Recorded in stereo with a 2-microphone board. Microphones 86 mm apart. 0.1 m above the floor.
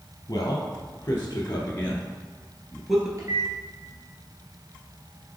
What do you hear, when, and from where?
0.3 s a man speaking: 40° left (ahead or behind), 1.7 m; by 3.1 s 5° right (ahead or behind), 1.4 m
3.2 s a microwave: 40° right (ahead or behind), 2.0 m